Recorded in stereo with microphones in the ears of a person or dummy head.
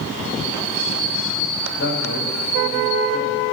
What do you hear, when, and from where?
1.8 s a man speaking: 60° left (ahead or behind), 8 m